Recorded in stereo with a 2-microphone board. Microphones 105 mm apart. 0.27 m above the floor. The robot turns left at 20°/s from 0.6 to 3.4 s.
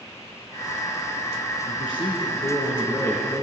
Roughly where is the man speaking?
Ahead left.